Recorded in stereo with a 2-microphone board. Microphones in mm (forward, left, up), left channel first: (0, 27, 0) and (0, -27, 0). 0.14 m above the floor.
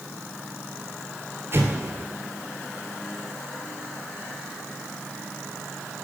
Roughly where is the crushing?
No crushing in this recording.